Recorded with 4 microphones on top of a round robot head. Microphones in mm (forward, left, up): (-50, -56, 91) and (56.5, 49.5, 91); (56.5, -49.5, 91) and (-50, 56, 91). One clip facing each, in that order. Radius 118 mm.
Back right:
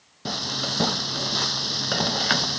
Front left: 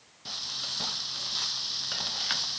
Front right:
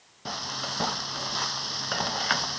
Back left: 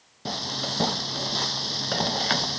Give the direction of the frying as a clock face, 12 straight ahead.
5 o'clock.